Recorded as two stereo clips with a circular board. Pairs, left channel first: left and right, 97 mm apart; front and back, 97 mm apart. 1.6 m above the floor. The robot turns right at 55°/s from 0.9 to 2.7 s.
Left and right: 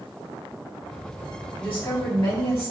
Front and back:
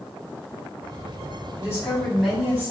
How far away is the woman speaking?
About 1.6 m.